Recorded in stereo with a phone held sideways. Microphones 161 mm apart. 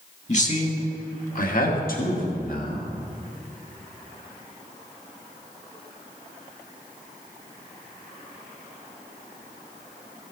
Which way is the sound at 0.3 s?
45° left (ahead or behind).